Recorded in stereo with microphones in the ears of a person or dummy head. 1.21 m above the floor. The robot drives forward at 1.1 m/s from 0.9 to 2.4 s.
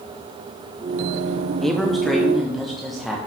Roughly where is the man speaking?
Centre.